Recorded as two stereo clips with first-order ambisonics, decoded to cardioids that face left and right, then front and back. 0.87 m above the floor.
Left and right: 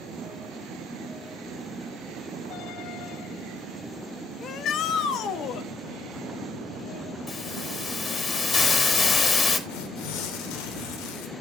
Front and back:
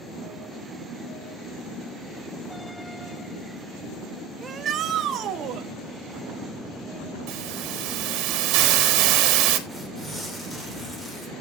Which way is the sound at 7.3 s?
155° left.